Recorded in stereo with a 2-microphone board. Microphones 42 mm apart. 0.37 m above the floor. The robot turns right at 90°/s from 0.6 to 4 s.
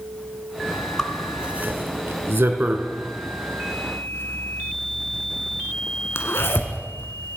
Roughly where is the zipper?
Centre.